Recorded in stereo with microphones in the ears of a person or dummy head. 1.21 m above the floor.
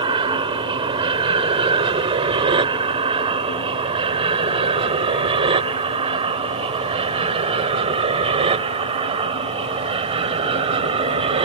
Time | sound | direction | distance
0.0 | an aircraft | 30° right (ahead or behind) | ?